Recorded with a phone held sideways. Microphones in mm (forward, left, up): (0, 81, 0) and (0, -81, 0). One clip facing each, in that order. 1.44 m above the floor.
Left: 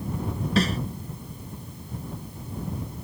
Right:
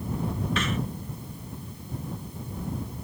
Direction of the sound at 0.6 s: 35° left (ahead or behind).